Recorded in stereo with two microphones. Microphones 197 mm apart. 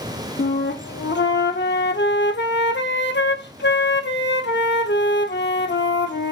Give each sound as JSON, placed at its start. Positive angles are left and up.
{"t": 0.4, "sound": "a flute", "side_deg": 65, "distance_m": 0.8}